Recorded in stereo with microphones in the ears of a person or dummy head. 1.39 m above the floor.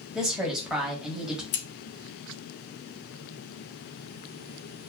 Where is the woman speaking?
5° right (ahead or behind), 1.5 m.